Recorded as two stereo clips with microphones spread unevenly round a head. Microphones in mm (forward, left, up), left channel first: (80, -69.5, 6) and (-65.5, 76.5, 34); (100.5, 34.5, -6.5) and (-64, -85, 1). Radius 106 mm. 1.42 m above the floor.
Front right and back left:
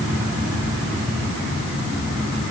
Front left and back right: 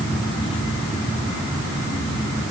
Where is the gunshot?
No gunshot in this recording.